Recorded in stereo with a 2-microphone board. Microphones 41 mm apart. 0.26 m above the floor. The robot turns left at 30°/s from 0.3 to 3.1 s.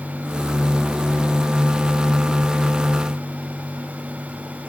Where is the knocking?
I don't hear knocking.